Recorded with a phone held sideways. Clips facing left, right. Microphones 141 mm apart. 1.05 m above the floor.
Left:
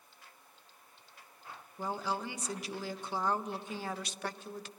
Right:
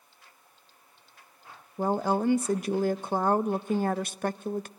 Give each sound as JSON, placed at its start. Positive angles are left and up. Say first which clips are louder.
{"t": 1.8, "sound": "a woman speaking", "louder": "right 10 dB", "side_deg": -50, "distance_m": 0.5}